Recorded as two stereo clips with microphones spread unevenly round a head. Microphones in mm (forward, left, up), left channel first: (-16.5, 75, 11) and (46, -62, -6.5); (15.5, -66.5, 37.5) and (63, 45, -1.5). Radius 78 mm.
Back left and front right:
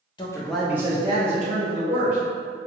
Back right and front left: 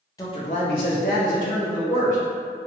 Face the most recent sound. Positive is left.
turn(degrees=-100)